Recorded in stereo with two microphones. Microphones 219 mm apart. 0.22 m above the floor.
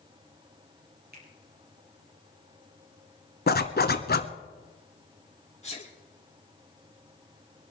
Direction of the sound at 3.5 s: 45° left (ahead or behind).